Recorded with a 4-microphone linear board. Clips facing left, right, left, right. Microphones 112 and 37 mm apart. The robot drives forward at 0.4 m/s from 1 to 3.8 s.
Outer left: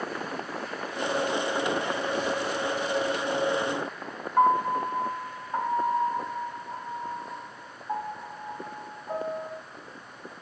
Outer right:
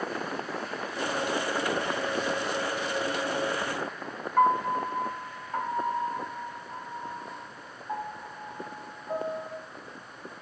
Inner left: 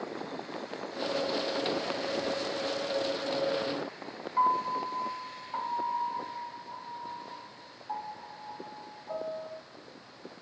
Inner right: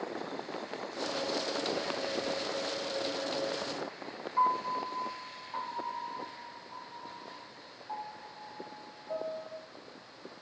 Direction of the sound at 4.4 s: 15° left (ahead or behind).